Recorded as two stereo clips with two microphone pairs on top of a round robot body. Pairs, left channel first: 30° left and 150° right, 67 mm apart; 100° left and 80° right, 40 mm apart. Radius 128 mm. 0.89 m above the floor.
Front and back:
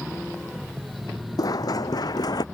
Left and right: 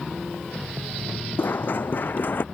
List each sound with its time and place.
1.4 s running footsteps: 65° left; by 2.5 s 60° left